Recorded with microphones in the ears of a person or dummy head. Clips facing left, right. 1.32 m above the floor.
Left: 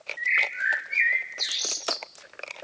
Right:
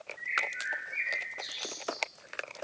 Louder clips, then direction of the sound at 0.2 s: Left 7 dB; 80° left.